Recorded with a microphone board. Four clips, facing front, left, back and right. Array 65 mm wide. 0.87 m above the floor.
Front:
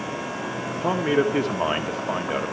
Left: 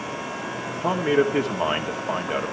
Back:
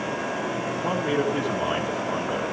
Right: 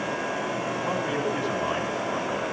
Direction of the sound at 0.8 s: 45° left.